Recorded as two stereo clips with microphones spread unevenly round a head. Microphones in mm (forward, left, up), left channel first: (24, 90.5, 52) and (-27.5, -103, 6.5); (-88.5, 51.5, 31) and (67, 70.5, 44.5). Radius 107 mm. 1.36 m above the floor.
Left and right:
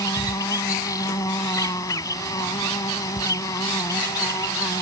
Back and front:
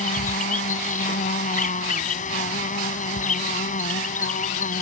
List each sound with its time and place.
0.0 s an insect: 150° left